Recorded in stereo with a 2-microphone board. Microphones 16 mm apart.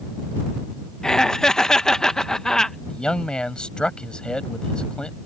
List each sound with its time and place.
1.0 s laughter: 30° left (ahead or behind)
2.9 s a man speaking: 65° left (ahead or behind)